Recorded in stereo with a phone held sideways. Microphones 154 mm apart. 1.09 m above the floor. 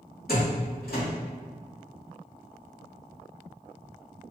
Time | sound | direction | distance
0.3 | a door slam | 80° left | 1.7 m